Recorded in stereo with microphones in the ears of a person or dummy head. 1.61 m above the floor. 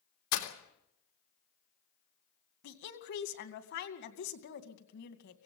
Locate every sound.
0.3 s breaking glass: 75° left (ahead or behind), 3 m
2.6 s a woman speaking: 55° left (ahead or behind), 2.5 m